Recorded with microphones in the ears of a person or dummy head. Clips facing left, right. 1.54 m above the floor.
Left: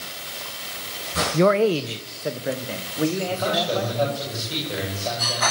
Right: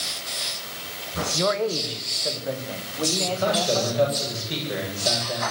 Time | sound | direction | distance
1.3 | a man speaking | 60° left (ahead or behind) | 0.8 m
3.3 | a man speaking | 20° right (ahead or behind) | 9 m